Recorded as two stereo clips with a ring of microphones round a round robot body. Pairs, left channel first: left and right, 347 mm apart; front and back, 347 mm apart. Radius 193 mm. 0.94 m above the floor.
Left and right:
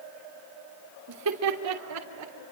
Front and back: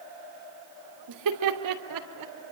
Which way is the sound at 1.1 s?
140° right.